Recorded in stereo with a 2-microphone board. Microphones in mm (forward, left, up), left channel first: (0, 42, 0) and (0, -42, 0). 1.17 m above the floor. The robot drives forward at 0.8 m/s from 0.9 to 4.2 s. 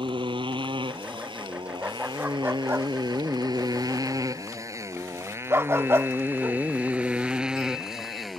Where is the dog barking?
20° right (ahead or behind); by 6.6 s 30° right (ahead or behind).